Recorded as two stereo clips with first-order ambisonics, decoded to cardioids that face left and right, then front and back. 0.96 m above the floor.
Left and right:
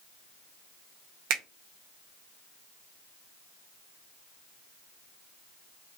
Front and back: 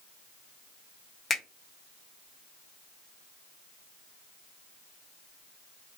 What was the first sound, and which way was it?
A finger snap, 70° right.